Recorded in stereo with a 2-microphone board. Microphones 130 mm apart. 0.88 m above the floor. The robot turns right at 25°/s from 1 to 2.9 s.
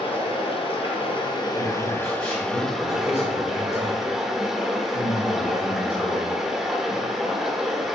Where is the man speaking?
20° left, 2.5 m; by 6.4 s 55° left, 2.5 m.